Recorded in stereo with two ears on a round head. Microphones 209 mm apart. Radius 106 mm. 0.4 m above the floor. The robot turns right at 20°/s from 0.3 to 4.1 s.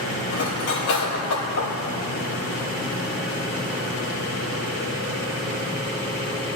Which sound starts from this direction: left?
Cutlery clinking, at 0.3 s.